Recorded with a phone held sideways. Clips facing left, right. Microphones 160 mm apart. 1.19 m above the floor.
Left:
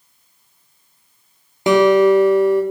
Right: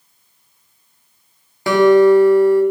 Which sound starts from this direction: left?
A guitar, at 1.7 s.